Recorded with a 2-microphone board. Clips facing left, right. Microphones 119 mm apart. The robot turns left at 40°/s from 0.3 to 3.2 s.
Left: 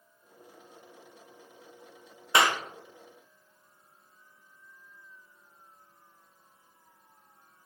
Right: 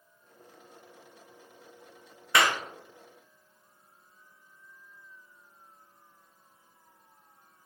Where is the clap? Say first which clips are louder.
Left 1 dB; 20° left (ahead or behind), 0.6 m; by 2.6 s 10° left (ahead or behind), 0.6 m.